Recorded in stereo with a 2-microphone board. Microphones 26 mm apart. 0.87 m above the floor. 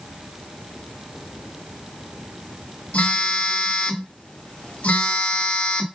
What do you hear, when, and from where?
2.9 s a phone buzzing: 65° left (ahead or behind), 2 m